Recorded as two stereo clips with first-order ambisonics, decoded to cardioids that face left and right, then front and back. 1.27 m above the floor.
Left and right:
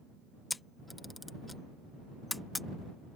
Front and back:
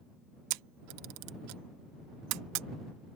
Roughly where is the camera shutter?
Behind.